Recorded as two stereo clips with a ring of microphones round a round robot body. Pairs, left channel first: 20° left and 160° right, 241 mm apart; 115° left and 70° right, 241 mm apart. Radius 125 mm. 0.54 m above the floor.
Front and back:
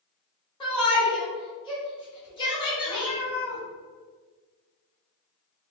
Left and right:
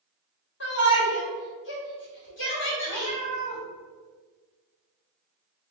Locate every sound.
0.6 s a shout: 90° left, 1.8 m
2.9 s a cat meowing: 50° left, 1.5 m